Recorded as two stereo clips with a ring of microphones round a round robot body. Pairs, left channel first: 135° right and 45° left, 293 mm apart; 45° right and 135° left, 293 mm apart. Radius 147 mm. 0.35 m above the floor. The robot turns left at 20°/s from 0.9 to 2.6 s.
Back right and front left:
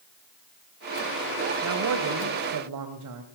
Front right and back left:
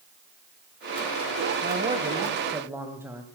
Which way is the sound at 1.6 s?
75° left.